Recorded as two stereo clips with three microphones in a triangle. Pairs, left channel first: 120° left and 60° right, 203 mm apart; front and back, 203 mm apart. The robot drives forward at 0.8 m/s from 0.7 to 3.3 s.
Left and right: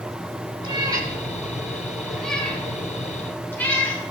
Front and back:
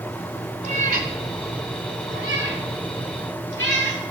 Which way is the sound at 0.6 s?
125° right.